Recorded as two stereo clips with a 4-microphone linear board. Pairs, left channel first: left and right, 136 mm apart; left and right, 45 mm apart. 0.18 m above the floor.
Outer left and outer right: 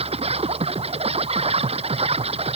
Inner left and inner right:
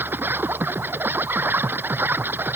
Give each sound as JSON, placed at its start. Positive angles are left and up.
{"t": 0.0, "sound": "an insect", "side_deg": -45}